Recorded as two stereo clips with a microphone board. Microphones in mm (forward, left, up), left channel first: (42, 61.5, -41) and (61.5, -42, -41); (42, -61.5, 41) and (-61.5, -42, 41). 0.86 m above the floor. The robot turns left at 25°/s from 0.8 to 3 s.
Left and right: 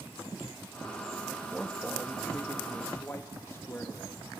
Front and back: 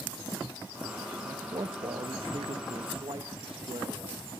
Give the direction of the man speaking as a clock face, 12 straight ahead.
5 o'clock.